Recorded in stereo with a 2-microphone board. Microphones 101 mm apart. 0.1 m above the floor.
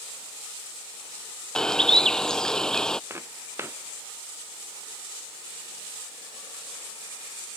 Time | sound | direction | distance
1.6 | a bird | 10° left (ahead or behind) | ?
3.1 | footsteps | 25° right (ahead or behind) | ?